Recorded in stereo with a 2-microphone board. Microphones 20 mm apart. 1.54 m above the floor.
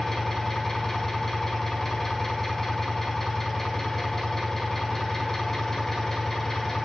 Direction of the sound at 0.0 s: 20° left (ahead or behind).